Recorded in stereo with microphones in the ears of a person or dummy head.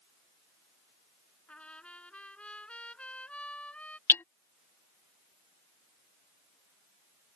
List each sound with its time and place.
1.5 s a trumpet: 5° left (ahead or behind)
4.1 s hammering: 10° left (ahead or behind)